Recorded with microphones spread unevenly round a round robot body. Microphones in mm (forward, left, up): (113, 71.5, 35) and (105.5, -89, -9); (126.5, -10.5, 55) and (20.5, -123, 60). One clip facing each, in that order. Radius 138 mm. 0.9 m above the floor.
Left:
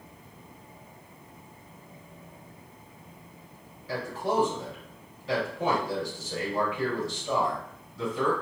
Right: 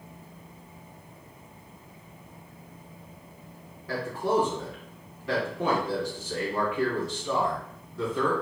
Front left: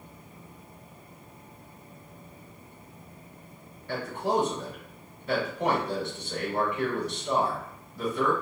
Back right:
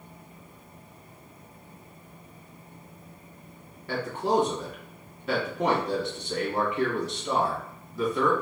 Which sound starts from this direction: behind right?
A man speaking, at 3.9 s.